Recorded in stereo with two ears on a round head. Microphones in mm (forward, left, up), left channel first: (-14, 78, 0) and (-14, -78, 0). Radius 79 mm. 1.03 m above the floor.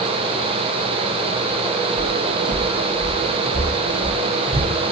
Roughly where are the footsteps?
Centre.